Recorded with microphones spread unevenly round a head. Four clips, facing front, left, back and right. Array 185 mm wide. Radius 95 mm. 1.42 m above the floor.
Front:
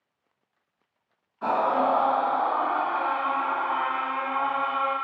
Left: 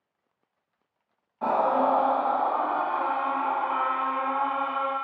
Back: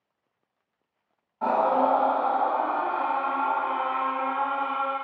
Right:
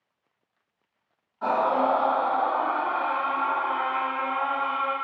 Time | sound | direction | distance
1.4 | a scream | 155° left | 1.7 m